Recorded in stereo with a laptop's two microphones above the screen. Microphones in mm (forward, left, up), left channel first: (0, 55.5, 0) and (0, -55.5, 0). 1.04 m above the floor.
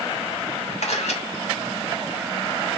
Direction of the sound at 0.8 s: 75° left (ahead or behind).